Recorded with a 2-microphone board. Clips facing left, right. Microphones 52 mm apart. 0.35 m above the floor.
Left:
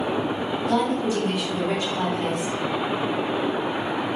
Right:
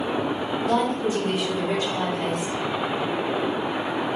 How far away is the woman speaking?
About 0.9 m.